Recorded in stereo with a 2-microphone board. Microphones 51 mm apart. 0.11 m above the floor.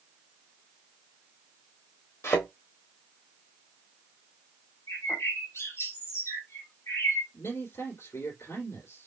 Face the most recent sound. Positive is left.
turn(degrees=60)  # may be behind; listen again after turning